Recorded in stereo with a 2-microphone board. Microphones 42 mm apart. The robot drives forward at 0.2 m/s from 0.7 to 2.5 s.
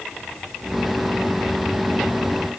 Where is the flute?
I don't hear a flute.